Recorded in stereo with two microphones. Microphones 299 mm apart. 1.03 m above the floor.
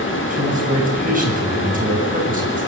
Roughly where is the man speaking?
Right.